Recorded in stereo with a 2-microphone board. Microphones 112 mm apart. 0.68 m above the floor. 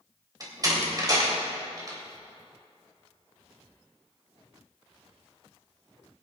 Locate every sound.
0.4 s a door slam: 35° right (ahead or behind), 3 m